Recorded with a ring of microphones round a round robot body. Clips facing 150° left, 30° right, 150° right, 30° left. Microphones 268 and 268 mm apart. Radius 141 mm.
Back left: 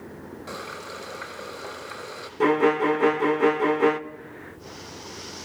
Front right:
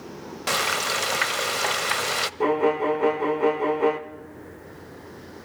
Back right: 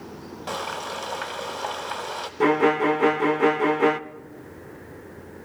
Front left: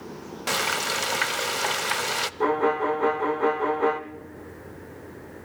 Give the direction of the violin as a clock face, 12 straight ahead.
5 o'clock.